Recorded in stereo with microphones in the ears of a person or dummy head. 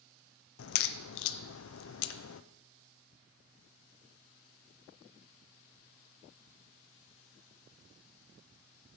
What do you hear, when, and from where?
0.6 s a crack: 75° left (ahead or behind), 0.6 m